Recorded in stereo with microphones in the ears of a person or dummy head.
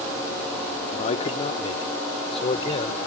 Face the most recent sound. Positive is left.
turn(degrees=35)  # may be behind; listen again after turning